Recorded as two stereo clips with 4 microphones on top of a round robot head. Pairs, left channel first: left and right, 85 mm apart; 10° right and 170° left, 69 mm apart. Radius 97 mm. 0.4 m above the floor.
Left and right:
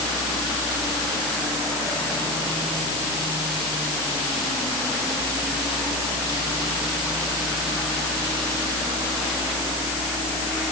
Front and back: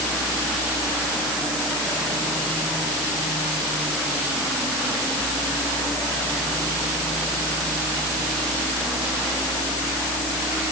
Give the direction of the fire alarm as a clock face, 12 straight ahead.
I don't hear a fire alarm.